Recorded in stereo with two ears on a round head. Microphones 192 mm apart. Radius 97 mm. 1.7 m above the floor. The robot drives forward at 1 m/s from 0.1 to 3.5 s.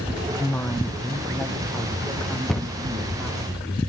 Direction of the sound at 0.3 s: 15° left (ahead or behind).